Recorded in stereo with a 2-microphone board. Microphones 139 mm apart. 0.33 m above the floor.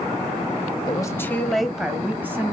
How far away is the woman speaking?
About 1.4 m.